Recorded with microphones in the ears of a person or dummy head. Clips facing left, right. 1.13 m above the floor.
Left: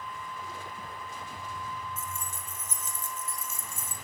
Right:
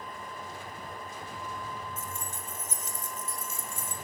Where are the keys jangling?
35° left (ahead or behind), 5 m; by 3.9 s 30° left (ahead or behind), 7 m.